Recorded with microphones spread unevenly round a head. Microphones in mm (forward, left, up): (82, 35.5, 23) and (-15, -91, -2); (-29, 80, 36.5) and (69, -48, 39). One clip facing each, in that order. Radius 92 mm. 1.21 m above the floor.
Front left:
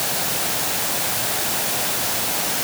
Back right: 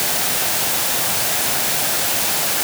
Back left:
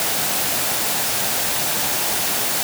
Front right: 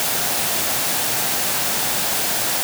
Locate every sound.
Only background noise.